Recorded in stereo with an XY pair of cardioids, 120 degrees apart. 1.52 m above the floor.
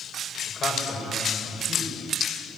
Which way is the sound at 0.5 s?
45° left.